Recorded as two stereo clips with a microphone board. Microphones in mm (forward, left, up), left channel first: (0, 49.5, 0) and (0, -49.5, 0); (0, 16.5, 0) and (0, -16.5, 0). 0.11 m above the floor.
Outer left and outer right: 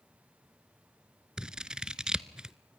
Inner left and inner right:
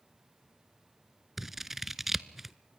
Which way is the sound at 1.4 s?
10° right (ahead or behind).